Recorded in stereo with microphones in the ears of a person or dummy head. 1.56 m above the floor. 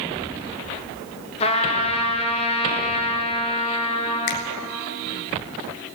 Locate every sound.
1.4 s a trumpet: 35° left (ahead or behind), 1.5 m
4.3 s a finger snap: 60° left (ahead or behind), 1.1 m